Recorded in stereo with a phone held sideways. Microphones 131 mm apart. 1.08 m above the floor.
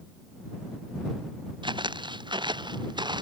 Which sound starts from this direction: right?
Footsteps, at 1.6 s.